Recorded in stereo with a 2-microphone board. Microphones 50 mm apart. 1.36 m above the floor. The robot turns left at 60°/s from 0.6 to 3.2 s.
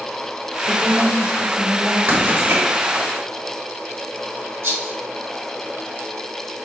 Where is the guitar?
No guitar in this recording.